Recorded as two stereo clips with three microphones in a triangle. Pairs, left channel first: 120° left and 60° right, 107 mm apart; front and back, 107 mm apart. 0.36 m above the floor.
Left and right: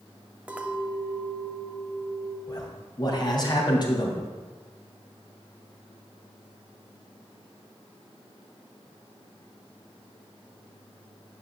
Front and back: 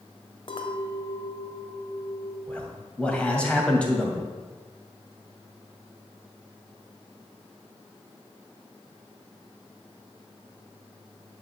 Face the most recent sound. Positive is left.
turn(degrees=80)